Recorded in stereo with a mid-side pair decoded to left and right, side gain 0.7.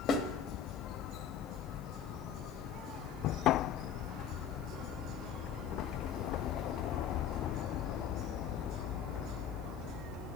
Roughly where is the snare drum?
Ahead left.